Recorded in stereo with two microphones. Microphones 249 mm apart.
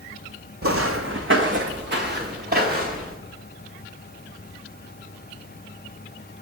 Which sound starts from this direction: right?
Footsteps, at 0.6 s.